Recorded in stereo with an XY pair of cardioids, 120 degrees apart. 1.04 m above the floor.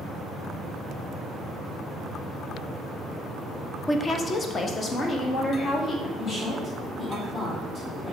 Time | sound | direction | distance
3.9 | a woman speaking | 20° left | 0.6 m
6.2 | a woman speaking | 45° left | 2.5 m